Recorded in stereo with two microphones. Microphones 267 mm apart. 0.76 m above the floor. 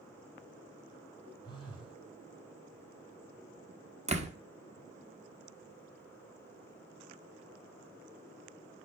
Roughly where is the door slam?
Right.